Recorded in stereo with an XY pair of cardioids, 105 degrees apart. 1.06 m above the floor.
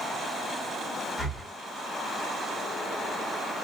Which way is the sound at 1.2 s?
10° left.